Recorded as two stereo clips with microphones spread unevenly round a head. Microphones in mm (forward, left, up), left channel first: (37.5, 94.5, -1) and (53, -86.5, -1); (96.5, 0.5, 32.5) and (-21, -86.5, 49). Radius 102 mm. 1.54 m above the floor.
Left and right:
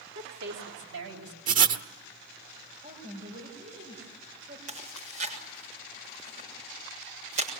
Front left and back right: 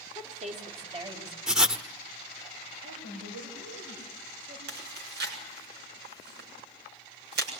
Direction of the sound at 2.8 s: 145° right.